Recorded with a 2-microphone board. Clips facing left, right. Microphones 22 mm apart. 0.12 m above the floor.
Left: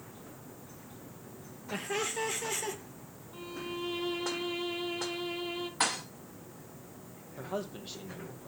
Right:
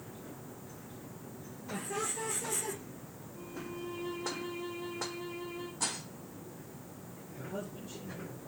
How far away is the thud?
About 2.5 m.